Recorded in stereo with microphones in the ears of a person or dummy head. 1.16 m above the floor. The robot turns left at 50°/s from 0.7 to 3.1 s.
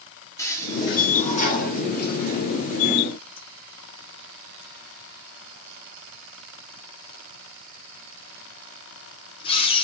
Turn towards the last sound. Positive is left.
turn(degrees=25)  # may be behind; listen again after turning